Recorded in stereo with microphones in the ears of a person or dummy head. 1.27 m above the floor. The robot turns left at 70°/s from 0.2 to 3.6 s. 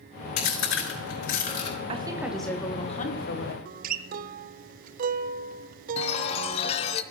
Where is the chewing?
50° left (ahead or behind), 4.5 m; by 1.8 s 30° left (ahead or behind), 4.5 m.